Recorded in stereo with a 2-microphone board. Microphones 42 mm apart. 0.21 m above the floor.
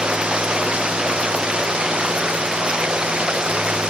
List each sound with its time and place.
0.0 s running water: 20° right (ahead or behind)